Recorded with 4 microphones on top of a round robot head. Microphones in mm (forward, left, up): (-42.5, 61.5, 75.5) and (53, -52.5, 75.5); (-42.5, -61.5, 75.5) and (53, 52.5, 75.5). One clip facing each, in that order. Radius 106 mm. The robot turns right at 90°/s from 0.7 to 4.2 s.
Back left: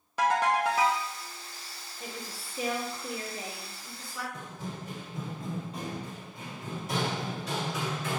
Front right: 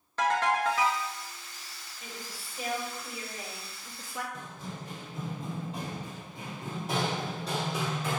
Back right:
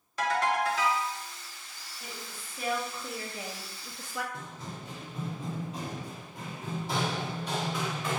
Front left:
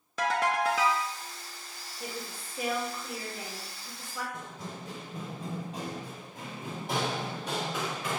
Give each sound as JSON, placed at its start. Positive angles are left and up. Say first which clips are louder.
{"t": 0.2, "sound": "a ringtone", "louder": "back left 1 dB, even", "azimuth_deg": 50, "distance_m": 0.5}
{"t": 2.0, "sound": "a woman speaking", "louder": "back left 3 dB, front left 5 dB", "azimuth_deg": 70, "distance_m": 0.7}
{"t": 4.3, "sound": "running footsteps", "louder": "back left 2 dB, front left 1 dB", "azimuth_deg": 80, "distance_m": 1.6}